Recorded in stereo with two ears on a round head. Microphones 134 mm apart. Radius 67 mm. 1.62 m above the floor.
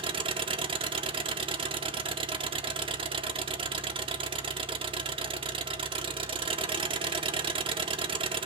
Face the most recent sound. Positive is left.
turn(degrees=-35)  # may be behind; listen again after turning